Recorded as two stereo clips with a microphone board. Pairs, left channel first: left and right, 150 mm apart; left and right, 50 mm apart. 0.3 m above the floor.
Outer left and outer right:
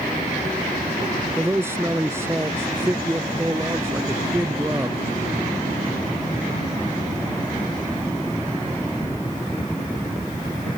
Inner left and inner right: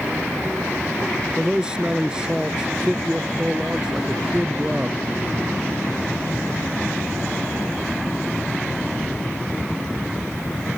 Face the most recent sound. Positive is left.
turn(degrees=-15)  # may be behind; listen again after turning